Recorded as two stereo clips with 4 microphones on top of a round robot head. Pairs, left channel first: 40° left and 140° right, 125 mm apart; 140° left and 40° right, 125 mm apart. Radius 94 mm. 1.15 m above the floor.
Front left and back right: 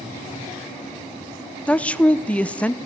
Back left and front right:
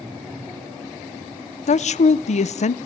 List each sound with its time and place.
1.7 s a woman speaking: 120° left, 0.7 m